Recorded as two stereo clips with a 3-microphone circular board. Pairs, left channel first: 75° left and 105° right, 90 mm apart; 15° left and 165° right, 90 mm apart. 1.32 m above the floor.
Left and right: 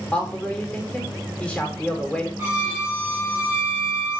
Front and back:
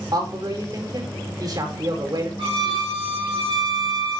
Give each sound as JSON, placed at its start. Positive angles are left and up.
{"t": 0.1, "sound": "a man speaking", "azimuth_deg": 155, "distance_m": 5.0}
{"t": 2.4, "sound": "a violin", "azimuth_deg": -175, "distance_m": 6.0}